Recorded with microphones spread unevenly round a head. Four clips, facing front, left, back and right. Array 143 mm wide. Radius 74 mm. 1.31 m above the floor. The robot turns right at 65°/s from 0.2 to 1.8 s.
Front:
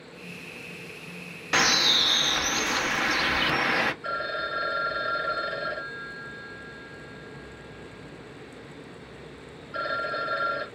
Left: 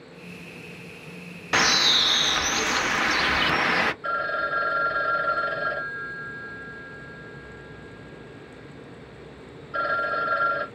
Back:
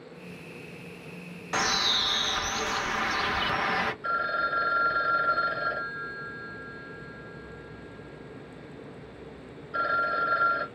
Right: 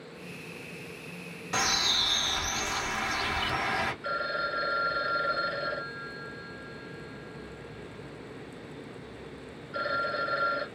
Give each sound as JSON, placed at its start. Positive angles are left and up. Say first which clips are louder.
{"t": 1.5, "sound": "a bird", "louder": "left 7 dB, front 3 dB", "azimuth_deg": 40, "distance_m": 0.5}
{"t": 4.0, "sound": "a phone ringing", "louder": "left 5 dB, back 2 dB", "azimuth_deg": 125, "distance_m": 1.7}